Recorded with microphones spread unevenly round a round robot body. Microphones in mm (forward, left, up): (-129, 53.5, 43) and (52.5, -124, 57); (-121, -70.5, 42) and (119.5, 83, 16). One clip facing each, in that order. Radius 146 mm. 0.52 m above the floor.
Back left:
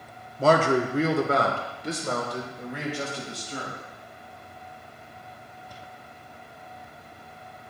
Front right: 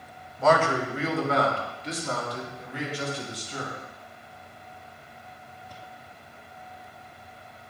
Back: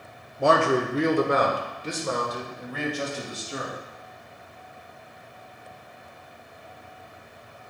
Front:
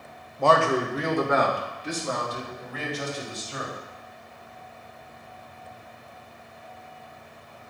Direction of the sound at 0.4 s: 125° left.